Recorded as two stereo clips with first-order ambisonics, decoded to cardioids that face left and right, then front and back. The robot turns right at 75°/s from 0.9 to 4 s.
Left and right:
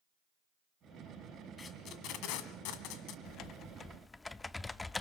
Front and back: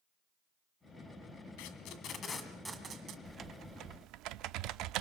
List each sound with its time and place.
1.6 s tape being pulled: 15° left, 1.8 m; by 3.1 s 135° left, 1.8 m
3.2 s typing on a keyboard: 110° left, 0.6 m; by 5.0 s 170° left, 0.6 m